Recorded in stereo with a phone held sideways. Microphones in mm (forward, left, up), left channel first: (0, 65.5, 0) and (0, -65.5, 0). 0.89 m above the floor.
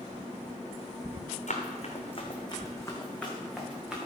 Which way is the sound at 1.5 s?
65° left (ahead or behind).